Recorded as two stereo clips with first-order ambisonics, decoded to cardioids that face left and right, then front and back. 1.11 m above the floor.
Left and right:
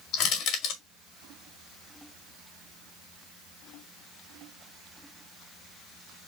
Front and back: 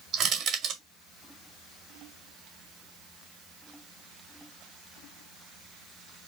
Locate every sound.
0.1 s crushing: 120° left, 2.5 m